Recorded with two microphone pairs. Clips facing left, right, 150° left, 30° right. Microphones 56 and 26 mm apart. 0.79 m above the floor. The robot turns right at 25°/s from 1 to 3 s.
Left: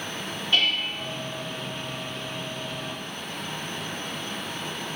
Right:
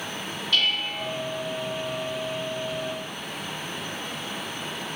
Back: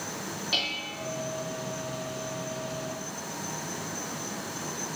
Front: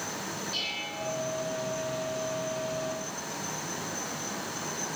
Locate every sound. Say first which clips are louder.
0.5 s dishes clattering: left 1 dB, back 5 dB; 155° left, 1.1 m; by 1.1 s 160° left, 1.1 m